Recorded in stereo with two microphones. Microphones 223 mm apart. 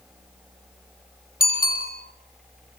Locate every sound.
1.4 s a bicycle bell: 40° left (ahead or behind), 7.5 m